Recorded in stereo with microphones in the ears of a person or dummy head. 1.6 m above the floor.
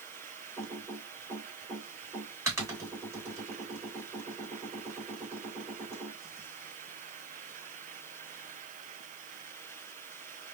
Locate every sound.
0.6 s typing on a keyboard: 20° right (ahead or behind), 1.8 m